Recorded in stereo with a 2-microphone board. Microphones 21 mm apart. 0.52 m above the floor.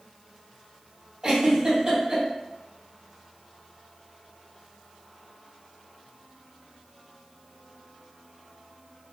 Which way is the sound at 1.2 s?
35° right (ahead or behind).